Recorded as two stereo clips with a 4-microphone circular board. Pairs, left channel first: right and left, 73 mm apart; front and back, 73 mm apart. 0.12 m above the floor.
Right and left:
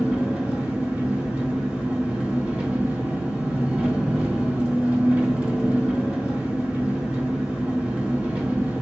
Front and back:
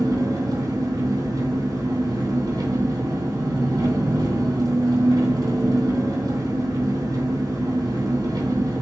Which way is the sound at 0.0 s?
165° left.